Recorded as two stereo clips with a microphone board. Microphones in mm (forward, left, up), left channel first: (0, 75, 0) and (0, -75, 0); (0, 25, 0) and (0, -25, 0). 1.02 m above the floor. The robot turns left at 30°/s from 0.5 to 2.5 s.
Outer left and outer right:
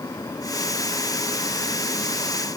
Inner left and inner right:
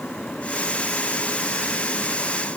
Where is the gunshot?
No gunshot in this recording.